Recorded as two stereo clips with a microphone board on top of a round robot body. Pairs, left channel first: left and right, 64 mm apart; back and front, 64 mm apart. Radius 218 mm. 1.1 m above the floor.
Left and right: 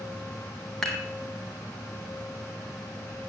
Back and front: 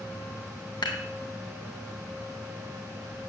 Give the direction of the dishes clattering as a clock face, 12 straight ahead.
6 o'clock.